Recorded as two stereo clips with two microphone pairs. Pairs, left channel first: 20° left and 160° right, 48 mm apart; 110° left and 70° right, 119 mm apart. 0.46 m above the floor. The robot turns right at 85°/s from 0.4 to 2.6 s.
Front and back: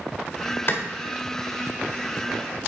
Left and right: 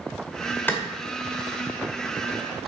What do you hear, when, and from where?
0.7 s a clap: 40° left, 1.7 m; by 0.8 s 50° left, 1.7 m